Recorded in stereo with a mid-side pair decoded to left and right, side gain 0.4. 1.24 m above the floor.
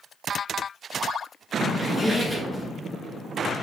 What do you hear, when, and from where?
1.7 s a squeak: 5° left, 3.5 m